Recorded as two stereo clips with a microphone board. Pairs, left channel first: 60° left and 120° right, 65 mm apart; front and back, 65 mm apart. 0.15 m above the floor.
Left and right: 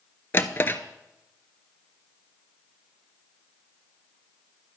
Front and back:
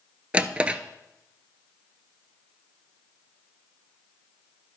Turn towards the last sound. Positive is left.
turn(degrees=115)